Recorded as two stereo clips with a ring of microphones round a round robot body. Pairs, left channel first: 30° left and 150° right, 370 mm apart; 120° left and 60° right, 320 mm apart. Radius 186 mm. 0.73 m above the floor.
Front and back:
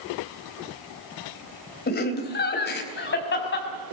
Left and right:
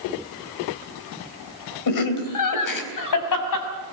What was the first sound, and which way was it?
Laughter, 95° left.